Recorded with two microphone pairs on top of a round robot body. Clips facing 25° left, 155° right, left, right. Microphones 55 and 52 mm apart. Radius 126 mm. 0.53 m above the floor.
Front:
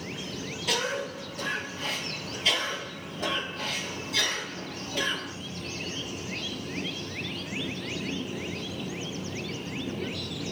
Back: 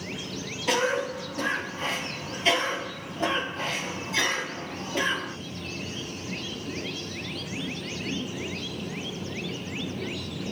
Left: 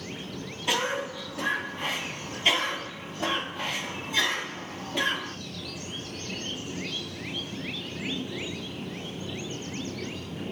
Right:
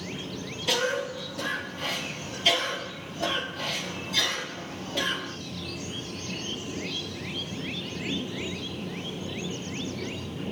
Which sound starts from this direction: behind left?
A cough, at 0.7 s.